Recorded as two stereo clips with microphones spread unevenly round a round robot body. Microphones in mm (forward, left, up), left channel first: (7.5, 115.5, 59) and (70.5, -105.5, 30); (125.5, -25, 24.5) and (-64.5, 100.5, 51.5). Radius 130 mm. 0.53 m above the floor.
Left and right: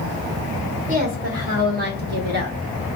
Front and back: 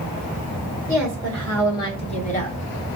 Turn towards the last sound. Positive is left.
turn(degrees=-55)